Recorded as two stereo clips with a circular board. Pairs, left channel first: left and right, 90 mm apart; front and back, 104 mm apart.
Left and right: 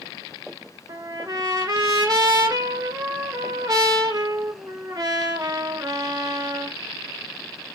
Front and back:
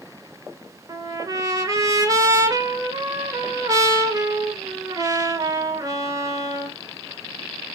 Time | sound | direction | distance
0.9 | a trumpet | 130° right | 1.3 m